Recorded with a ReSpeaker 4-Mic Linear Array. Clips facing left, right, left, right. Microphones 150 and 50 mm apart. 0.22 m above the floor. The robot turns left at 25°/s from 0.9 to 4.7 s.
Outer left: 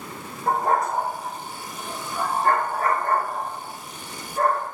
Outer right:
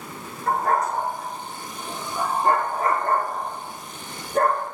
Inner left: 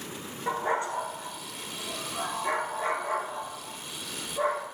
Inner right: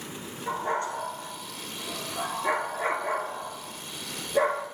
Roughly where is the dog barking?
Left.